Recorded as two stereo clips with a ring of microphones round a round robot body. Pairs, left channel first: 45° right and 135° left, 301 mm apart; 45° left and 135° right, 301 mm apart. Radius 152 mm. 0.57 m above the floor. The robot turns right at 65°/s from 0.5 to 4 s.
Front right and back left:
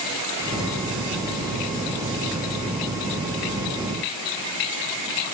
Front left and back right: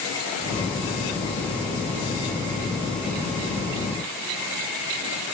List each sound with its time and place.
Only background noise.